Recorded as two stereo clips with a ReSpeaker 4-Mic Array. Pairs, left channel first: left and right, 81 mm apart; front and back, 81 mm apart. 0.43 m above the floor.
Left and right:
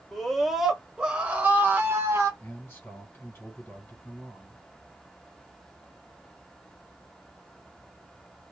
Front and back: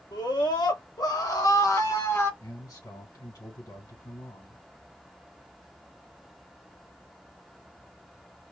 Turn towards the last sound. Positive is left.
turn(degrees=20)